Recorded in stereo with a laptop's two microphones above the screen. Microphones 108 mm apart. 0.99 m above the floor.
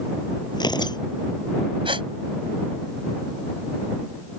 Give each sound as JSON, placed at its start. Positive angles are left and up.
{"t": 0.5, "sound": "tearing paper", "side_deg": 45}
{"t": 1.9, "sound": "a gasp", "side_deg": -55}